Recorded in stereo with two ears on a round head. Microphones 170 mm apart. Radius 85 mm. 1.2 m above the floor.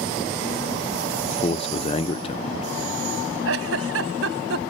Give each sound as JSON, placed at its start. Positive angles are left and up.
{"t": 1.2, "sound": "a man speaking", "side_deg": 30}
{"t": 3.5, "sound": "a giggle", "side_deg": -75}